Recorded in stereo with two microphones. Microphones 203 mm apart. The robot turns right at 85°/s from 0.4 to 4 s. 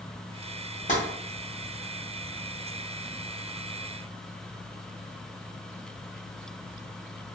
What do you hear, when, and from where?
0.9 s tapping: 40° left (ahead or behind), 1.0 m; by 1.0 s 35° left (ahead or behind), 1.0 m